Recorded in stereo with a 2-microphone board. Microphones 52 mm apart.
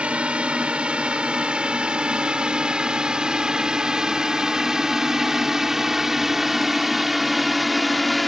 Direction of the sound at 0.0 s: 20° right (ahead or behind).